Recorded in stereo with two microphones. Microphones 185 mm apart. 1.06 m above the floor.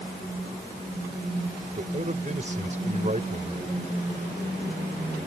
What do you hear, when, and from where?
1.8 s a man speaking: 45° right (ahead or behind)